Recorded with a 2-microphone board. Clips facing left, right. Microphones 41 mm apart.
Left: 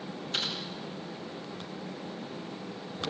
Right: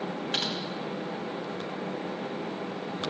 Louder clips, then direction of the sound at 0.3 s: Right 1 dB; 75° right (ahead or behind).